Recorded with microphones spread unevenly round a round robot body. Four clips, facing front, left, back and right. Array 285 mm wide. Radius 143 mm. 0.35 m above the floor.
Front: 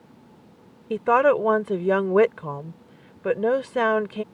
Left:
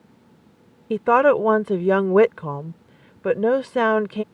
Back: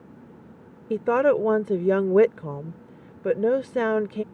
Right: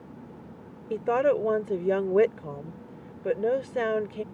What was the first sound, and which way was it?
A woman speaking, 100° left.